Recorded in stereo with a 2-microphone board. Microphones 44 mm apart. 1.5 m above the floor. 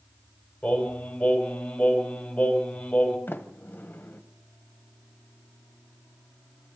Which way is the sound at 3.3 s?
45° left (ahead or behind).